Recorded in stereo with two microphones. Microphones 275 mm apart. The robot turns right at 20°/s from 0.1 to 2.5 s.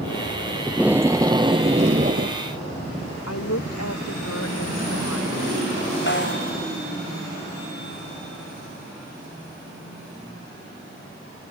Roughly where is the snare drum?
Left.